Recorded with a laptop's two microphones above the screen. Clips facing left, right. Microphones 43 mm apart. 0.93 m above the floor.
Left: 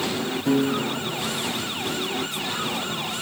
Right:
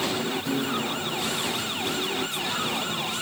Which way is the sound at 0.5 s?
40° left (ahead or behind).